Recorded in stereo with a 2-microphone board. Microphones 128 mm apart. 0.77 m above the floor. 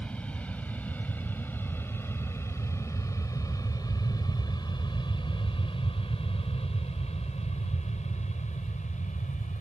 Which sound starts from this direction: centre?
An aircraft, at 0.0 s.